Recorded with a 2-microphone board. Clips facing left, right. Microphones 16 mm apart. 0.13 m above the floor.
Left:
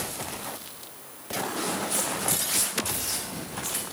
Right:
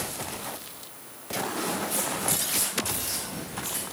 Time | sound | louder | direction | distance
1.6 | footsteps | left 2 dB | 30° left (ahead or behind) | 1.9 m